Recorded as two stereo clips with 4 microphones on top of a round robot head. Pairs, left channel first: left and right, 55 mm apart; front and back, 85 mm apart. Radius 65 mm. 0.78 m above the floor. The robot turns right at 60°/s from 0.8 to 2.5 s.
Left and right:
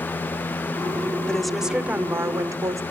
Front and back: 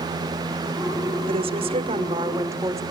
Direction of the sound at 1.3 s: 165° left.